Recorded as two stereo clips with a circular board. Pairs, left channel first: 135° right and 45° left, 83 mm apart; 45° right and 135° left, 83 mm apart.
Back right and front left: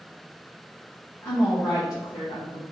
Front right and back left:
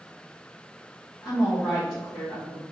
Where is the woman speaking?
85° right, 1.8 m; by 2.6 s 105° right, 3 m.